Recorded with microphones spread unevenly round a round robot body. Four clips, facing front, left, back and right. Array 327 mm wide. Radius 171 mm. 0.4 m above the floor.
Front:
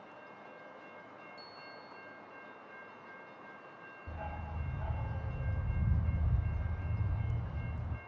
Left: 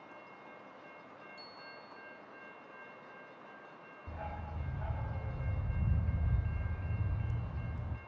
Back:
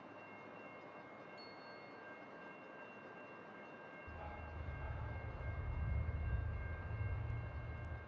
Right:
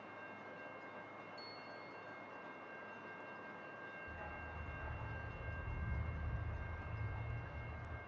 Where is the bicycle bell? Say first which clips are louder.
Left 1 dB, front 3 dB; 15° left, 9.5 m.